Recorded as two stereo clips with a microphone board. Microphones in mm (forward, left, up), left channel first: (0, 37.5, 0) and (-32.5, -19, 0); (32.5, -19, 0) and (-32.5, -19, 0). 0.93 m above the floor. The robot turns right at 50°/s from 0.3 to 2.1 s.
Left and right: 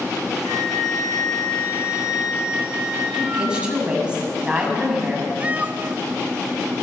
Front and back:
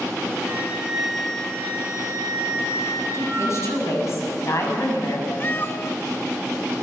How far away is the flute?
About 4 m.